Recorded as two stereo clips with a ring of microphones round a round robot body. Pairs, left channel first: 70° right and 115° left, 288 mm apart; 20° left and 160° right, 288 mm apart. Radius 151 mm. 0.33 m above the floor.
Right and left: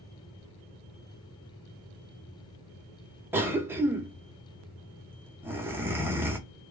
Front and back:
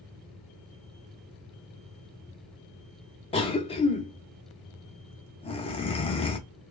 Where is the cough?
45° left, 0.9 m.